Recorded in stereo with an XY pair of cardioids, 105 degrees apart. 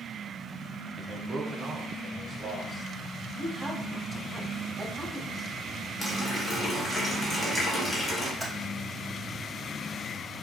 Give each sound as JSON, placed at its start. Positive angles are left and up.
{"t": 1.0, "sound": "a man speaking", "azimuth_deg": -10, "distance_m": 0.8}
{"t": 3.4, "sound": "a man speaking", "azimuth_deg": 5, "distance_m": 1.5}
{"t": 6.0, "sound": "a running tap", "azimuth_deg": 30, "distance_m": 1.5}
{"t": 8.4, "sound": "typing on a keyboard", "azimuth_deg": -5, "distance_m": 2.5}